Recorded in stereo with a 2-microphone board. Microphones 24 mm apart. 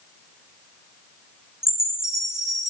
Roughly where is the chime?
Right.